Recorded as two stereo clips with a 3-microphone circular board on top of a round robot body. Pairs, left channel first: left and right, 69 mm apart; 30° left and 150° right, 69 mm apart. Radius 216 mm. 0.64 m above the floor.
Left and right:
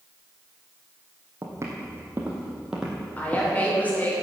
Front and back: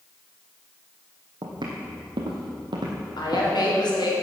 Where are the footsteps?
140° right, 2 m; by 3.5 s 165° left, 1.6 m.